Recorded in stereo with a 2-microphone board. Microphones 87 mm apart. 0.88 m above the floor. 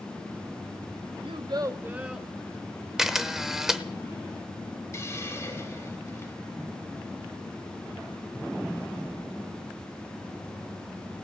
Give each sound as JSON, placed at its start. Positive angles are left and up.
{"t": 1.2, "sound": "a child speaking", "side_deg": -75, "distance_m": 0.8}
{"t": 3.0, "sound": "a camera shutter", "side_deg": -5, "distance_m": 0.7}
{"t": 4.9, "sound": "a hiss", "side_deg": 35, "distance_m": 2.5}